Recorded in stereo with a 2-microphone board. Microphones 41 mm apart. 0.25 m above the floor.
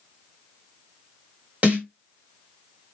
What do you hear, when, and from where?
1.6 s a snare drum: 30° right (ahead or behind), 1.4 m